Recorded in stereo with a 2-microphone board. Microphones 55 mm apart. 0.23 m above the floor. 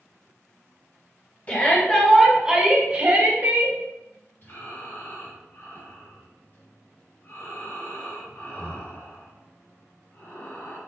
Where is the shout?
30° left (ahead or behind), 1.3 m; by 3.8 s 55° right (ahead or behind), 1.9 m.